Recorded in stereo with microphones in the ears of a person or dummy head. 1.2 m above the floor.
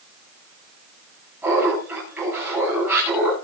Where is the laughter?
5° right (ahead or behind), 8.5 m.